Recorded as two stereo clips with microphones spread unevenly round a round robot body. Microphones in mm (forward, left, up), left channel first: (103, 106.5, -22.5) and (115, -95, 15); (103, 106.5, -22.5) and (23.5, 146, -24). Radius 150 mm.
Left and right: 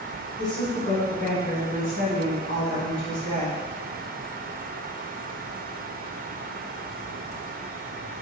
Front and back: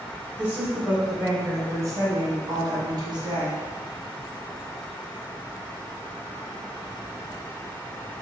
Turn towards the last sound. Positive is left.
turn(degrees=130)